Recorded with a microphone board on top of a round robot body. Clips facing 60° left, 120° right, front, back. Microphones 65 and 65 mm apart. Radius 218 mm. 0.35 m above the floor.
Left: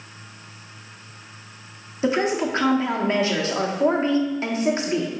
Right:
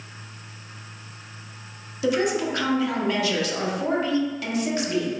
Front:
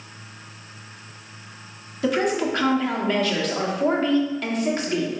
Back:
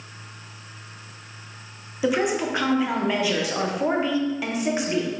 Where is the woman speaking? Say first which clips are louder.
Left 1 dB, front 1 dB; 105° left, 1.1 m.